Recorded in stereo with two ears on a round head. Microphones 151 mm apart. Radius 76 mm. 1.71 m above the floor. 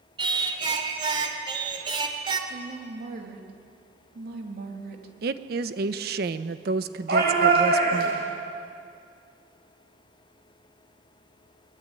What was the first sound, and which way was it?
Singing, 30° right (ahead or behind).